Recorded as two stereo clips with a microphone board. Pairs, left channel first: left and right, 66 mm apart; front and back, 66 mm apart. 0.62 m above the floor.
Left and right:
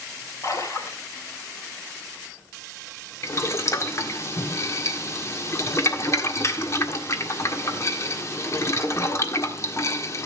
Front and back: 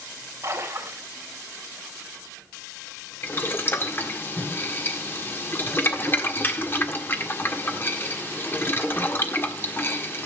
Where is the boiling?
50° left, 1.5 m.